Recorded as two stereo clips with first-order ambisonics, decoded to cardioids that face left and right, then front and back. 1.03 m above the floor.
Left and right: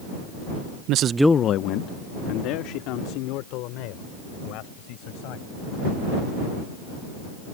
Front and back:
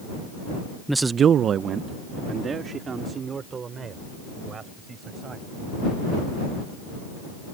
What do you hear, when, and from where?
0.9 s a man speaking: 90° right; by 5.6 s 110° left